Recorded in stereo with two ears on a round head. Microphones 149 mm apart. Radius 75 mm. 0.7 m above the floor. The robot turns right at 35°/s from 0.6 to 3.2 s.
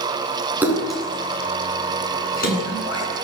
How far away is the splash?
About 9 m.